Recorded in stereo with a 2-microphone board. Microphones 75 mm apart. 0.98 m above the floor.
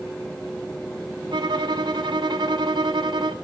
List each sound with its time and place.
1.3 s a violin: 75° right (ahead or behind), 1.0 m